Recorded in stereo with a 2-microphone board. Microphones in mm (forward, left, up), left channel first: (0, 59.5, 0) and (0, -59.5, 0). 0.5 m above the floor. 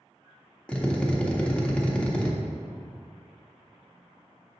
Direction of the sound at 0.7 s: 10° left (ahead or behind).